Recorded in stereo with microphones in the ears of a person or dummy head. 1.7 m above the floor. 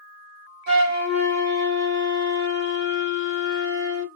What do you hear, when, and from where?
0.7 s a flute: 45° right (ahead or behind), 2.0 m